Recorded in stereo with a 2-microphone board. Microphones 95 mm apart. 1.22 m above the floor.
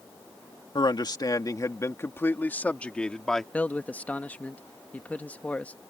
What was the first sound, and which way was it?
A man speaking, 55° left (ahead or behind).